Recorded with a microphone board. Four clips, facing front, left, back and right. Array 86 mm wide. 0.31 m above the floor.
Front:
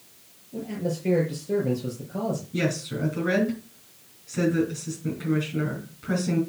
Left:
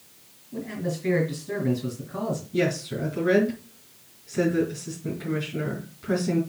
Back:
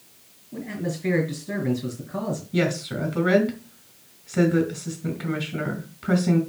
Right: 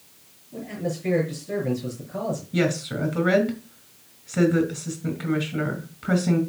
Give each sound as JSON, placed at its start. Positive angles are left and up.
{"t": 0.5, "sound": "a man speaking", "azimuth_deg": 170, "distance_m": 4.0}
{"t": 2.5, "sound": "a woman speaking", "azimuth_deg": -140, "distance_m": 3.5}